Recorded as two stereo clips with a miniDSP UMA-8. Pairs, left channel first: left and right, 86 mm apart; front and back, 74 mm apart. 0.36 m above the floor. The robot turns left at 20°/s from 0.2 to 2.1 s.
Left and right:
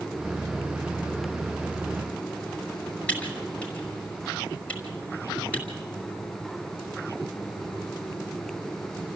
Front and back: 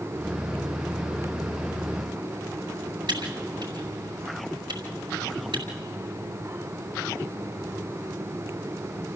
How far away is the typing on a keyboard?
About 5.5 m.